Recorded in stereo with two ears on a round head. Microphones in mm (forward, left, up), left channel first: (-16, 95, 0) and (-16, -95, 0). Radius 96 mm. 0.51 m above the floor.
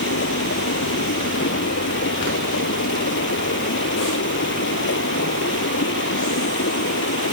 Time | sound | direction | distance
0.0 | running water | 55° left (ahead or behind) | ?